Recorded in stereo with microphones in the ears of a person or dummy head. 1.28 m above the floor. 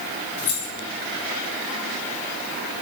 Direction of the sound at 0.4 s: 55° left (ahead or behind).